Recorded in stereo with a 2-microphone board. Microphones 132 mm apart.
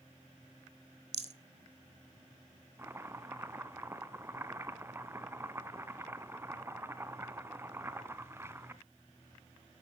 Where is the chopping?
20° right (ahead or behind), 0.7 m.